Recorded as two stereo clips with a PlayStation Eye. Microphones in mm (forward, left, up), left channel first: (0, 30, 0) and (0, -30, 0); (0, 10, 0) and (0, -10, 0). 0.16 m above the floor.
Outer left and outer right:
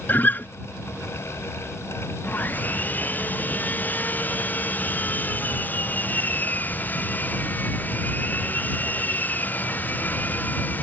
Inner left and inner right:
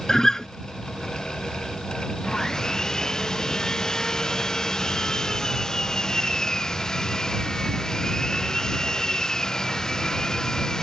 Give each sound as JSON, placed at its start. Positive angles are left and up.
{"t": 0.1, "sound": "a guitar", "side_deg": 30}
{"t": 2.2, "sound": "sawing", "side_deg": 30}